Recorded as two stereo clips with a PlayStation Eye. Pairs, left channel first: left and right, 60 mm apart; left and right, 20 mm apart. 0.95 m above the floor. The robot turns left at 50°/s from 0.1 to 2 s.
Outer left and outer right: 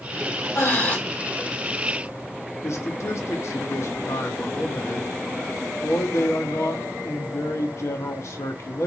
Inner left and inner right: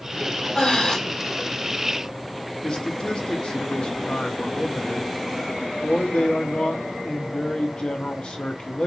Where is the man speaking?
50° left (ahead or behind), 1.1 m.